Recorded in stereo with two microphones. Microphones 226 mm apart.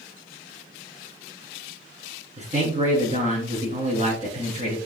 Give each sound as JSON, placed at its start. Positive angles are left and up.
{"t": 2.4, "sound": "a man speaking", "side_deg": -30, "distance_m": 2.5}